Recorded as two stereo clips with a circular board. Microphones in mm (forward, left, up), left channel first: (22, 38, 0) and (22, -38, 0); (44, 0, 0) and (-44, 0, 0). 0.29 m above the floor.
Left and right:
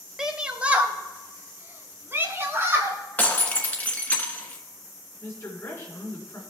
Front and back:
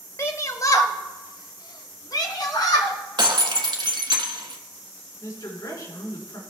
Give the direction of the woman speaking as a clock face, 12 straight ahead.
11 o'clock.